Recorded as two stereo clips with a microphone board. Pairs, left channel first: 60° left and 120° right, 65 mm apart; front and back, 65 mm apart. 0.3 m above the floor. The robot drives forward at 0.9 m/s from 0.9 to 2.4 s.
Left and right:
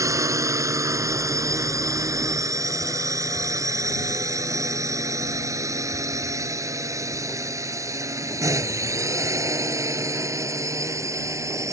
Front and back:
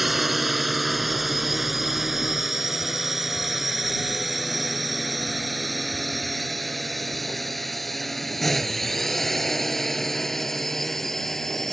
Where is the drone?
95° right; by 11.7 s 85° right.